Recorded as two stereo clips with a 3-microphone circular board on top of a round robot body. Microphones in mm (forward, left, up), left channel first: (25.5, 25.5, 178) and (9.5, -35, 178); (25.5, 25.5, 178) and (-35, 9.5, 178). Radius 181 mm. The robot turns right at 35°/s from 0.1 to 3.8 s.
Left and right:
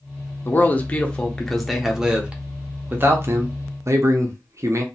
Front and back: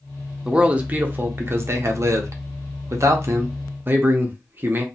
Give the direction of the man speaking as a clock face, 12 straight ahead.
8 o'clock.